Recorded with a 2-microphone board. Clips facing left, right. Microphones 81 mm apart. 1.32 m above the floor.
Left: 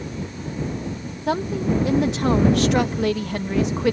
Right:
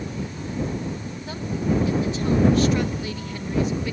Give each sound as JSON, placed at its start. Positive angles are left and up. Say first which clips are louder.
{"t": 1.3, "sound": "a woman speaking", "louder": "left 4 dB", "side_deg": 75}